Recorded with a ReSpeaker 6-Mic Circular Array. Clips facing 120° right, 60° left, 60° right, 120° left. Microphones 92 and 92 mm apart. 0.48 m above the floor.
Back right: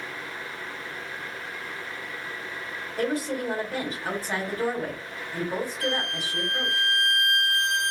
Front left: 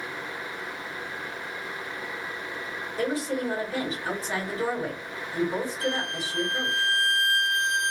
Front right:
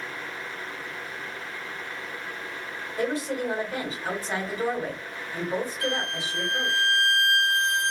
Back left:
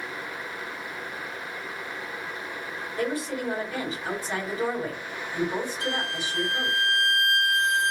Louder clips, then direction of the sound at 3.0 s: Even, front right 2 dB; 125° right.